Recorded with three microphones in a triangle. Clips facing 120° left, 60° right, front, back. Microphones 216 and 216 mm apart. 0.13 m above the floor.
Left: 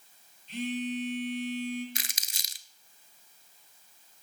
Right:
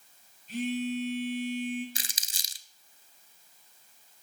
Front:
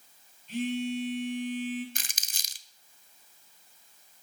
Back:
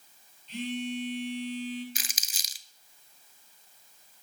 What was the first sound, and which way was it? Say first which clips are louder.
A phone buzzing: right 2 dB, front 3 dB; 30° right.